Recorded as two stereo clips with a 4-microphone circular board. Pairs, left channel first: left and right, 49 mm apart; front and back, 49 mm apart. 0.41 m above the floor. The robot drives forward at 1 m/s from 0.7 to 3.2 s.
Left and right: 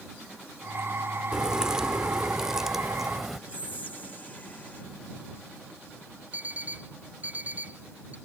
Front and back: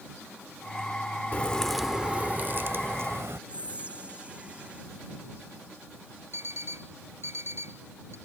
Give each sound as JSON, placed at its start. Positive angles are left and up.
{"t": 1.3, "sound": "a crack", "azimuth_deg": -25}
{"t": 3.5, "sound": "whispering", "azimuth_deg": 130}
{"t": 6.3, "sound": "an alarm clock", "azimuth_deg": -145}